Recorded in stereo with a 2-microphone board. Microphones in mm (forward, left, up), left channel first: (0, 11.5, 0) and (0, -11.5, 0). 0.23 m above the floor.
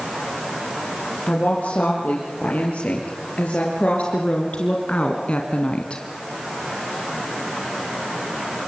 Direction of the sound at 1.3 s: 80° left.